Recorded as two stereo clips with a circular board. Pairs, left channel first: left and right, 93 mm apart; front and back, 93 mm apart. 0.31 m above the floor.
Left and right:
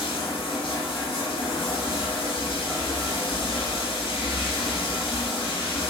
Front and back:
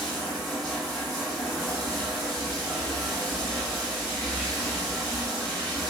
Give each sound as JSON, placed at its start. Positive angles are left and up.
{"t": 0.0, "sound": "running water", "azimuth_deg": 90, "distance_m": 1.0}